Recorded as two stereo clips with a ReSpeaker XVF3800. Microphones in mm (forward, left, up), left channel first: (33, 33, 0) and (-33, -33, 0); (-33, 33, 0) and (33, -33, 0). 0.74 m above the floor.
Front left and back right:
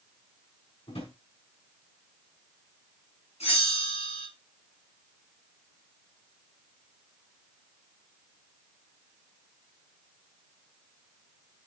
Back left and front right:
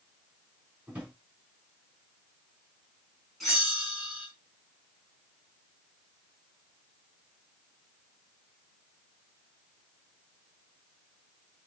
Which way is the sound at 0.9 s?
30° left.